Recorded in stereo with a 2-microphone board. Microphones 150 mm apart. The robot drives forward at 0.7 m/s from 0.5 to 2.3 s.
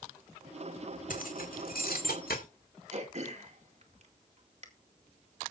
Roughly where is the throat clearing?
Right.